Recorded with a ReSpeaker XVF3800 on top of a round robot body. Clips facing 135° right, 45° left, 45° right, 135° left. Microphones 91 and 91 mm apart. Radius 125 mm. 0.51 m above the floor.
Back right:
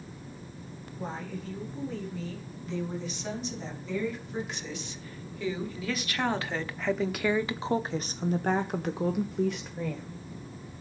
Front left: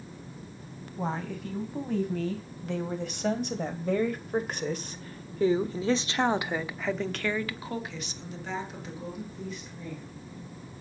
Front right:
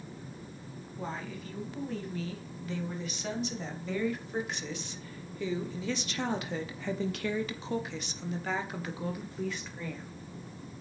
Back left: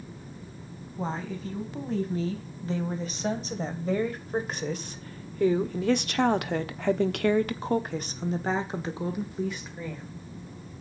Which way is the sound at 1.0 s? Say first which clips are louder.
Front left 4 dB, back left 6 dB; 75° left.